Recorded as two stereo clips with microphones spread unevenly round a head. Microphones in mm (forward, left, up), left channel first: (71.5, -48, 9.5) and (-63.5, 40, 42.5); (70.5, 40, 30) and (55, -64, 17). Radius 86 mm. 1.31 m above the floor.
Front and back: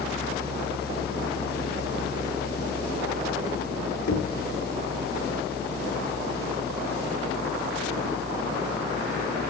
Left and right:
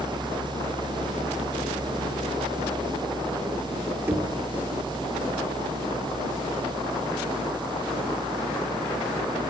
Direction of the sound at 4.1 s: 30° right.